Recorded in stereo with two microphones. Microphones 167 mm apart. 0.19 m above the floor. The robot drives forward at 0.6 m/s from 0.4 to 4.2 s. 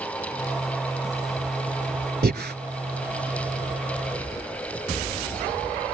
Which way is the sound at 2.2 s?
65° right (ahead or behind).